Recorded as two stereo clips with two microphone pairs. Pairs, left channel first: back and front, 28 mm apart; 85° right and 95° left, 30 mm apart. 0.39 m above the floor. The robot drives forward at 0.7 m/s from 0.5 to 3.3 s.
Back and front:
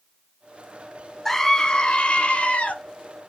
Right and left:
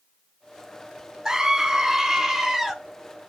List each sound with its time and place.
1.2 s a scream: 115° left, 0.8 m; by 2.8 s 165° left, 1.4 m